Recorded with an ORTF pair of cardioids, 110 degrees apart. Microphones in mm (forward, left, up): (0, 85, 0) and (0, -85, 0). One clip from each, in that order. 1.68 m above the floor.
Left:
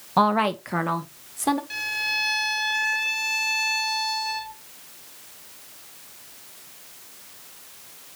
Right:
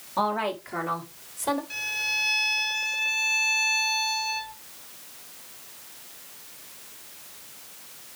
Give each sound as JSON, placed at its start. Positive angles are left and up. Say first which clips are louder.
{"t": 0.2, "sound": "a woman speaking", "louder": "left 6 dB", "azimuth_deg": 65, "distance_m": 1.6}
{"t": 1.7, "sound": "a violin", "louder": "left 2 dB", "azimuth_deg": 20, "distance_m": 1.2}